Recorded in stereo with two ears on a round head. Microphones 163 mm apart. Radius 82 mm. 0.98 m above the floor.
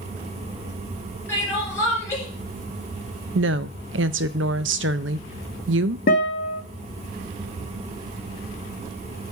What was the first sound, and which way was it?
Crying, 15° left (ahead or behind).